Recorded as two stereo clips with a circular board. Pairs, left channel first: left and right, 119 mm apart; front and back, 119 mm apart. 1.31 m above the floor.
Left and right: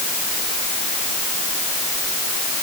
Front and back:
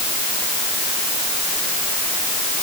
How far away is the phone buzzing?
I don't hear a phone buzzing.